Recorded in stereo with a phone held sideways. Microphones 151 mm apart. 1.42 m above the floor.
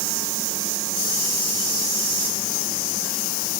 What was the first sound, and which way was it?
Only background noise.